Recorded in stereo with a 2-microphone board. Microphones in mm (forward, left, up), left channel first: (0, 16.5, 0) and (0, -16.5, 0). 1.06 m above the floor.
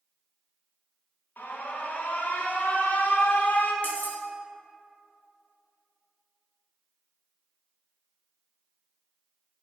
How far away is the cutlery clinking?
About 0.7 m.